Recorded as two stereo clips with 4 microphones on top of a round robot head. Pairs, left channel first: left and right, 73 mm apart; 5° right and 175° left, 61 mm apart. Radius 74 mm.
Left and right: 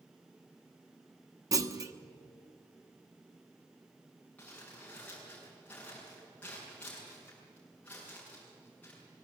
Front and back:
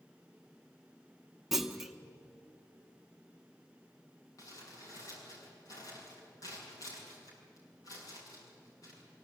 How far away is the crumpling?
About 7.5 m.